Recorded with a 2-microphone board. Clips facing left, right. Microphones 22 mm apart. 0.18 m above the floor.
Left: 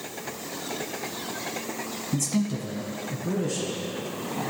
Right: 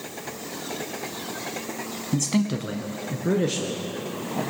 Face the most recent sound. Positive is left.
turn(degrees=-75)  # may be behind; listen again after turning